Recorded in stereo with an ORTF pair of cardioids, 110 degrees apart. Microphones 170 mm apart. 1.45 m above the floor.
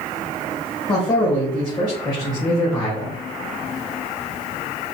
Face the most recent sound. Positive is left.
turn(degrees=25)